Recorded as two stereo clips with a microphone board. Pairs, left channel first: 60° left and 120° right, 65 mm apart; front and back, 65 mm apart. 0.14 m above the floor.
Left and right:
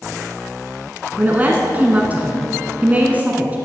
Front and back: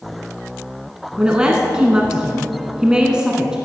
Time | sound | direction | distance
1.2 | a woman speaking | 120° right | 1.1 m